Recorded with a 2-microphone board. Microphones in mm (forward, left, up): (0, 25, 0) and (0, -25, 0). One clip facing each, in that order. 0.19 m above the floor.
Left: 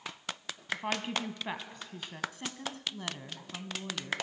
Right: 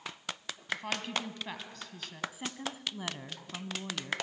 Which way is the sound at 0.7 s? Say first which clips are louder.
Left 1 dB; 20° left (ahead or behind).